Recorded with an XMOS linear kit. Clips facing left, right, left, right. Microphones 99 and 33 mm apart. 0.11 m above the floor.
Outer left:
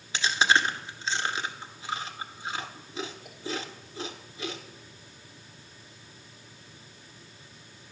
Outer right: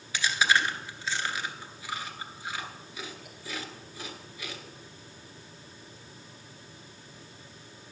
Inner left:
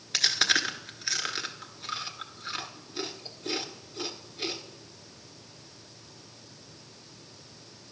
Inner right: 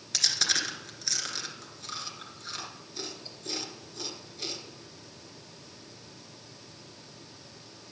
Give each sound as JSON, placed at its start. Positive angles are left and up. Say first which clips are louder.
{"t": 0.1, "sound": "chewing", "louder": "outer left 2 dB, inner left 4 dB", "side_deg": 30, "distance_m": 1.1}